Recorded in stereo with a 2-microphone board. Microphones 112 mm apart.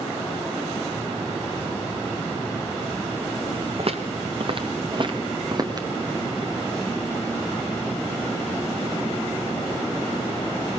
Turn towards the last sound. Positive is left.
turn(degrees=-35)  # may be behind; listen again after turning